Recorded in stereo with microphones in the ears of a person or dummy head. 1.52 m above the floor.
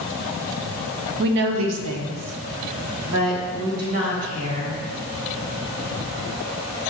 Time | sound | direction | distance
1.2 | a woman speaking | 50° right (ahead or behind) | 0.5 m